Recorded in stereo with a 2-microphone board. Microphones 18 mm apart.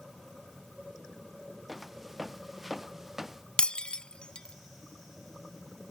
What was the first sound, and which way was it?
Footsteps, 15° right (ahead or behind).